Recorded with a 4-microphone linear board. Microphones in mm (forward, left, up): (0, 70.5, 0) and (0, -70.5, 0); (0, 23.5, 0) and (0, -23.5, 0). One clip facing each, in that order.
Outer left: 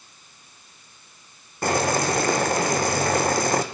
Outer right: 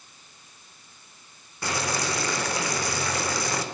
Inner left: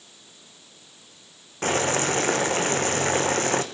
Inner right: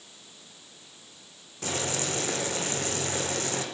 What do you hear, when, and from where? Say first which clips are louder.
1.6 s boiling: outer left 7 dB, inner left 8 dB; 50° left (ahead or behind), 2 m